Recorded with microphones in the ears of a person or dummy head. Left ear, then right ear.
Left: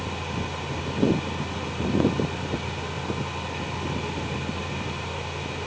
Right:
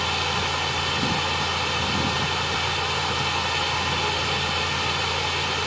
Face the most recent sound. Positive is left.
turn(degrees=-45)  # may be behind; listen again after turning